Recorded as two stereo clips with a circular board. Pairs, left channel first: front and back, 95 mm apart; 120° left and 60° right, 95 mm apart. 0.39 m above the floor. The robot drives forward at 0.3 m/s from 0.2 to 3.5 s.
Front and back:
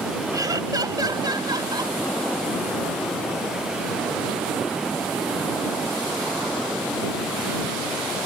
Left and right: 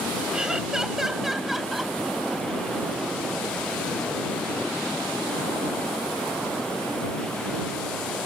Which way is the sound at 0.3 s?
140° right.